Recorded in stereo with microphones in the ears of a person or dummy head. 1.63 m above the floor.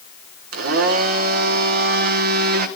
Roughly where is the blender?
Right.